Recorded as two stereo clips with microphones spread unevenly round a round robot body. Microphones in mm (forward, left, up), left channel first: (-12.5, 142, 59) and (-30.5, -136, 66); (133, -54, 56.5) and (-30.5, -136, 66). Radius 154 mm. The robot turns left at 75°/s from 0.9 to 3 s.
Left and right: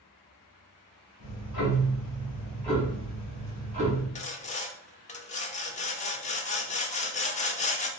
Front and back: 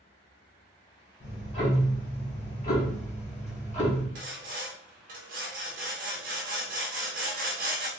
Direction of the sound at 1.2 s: 110° left.